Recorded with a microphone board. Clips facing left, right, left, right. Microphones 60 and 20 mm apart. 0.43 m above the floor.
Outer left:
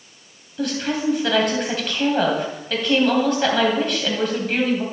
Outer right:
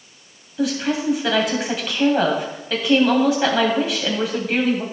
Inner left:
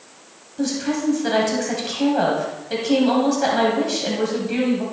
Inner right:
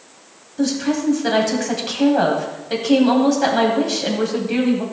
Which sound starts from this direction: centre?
A woman speaking, at 0.6 s.